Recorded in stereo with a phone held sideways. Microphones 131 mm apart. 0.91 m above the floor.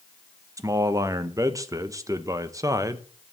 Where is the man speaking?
25° right (ahead or behind), 0.7 m.